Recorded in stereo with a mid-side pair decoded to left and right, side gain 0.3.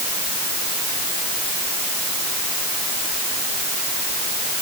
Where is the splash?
I don't hear a splash.